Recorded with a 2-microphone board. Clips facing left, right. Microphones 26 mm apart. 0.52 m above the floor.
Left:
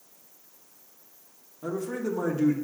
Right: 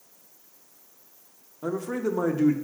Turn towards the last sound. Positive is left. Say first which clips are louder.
# right 2 dB
turn(degrees=-20)  # may be behind; listen again after turning